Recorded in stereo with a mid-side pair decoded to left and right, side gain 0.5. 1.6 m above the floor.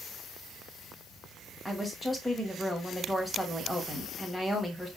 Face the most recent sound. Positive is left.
turn(degrees=5)